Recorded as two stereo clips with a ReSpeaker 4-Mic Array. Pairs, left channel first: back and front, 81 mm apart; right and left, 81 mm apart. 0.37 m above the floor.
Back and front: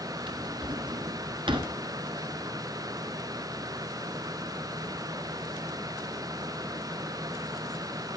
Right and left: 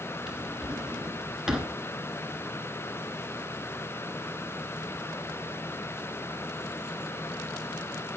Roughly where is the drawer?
Ahead.